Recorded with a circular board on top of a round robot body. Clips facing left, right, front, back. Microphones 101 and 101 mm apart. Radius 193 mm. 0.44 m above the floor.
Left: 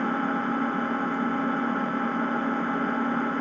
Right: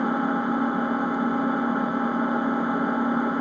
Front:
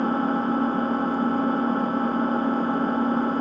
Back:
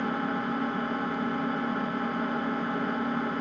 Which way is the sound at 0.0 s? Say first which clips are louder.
Right 3 dB, front 7 dB; 25° right.